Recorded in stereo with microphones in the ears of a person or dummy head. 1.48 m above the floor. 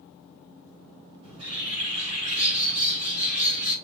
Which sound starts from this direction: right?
A bird, at 1.2 s.